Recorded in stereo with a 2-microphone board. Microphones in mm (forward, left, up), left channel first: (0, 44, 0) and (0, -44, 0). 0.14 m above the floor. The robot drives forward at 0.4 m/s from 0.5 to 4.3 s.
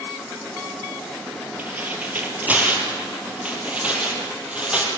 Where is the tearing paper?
20° right (ahead or behind), 3 m; by 4.9 s 15° right (ahead or behind), 4 m.